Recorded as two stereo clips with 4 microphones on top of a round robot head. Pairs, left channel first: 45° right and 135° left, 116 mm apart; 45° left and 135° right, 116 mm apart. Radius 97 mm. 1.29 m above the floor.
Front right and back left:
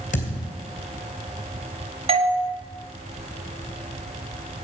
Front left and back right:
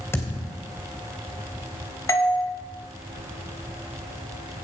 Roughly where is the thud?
Ahead right.